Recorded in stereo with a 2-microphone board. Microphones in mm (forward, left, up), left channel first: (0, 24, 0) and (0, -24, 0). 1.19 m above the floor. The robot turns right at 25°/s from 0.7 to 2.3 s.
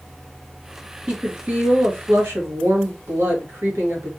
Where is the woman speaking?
145° right, 1.4 m; by 4.1 s 115° right, 1.4 m.